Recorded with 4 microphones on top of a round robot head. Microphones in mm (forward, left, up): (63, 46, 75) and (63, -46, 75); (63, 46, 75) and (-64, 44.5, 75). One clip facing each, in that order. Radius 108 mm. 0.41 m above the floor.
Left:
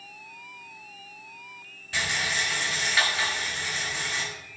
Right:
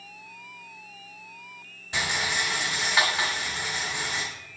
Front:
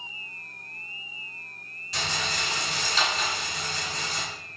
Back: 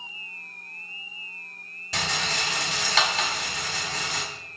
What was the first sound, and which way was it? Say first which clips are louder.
A rattle: right 1 dB, back 2 dB; 165° right.